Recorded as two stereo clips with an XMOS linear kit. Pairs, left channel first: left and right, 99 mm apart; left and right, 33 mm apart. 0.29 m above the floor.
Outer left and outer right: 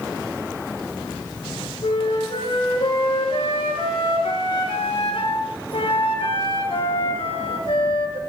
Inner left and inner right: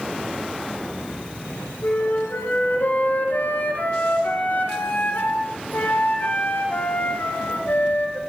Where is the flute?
65° left (ahead or behind), 2.5 m.